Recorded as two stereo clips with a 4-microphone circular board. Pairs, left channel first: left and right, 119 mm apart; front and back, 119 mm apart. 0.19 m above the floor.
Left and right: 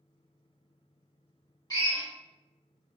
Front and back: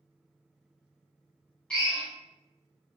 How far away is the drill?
About 1.9 m.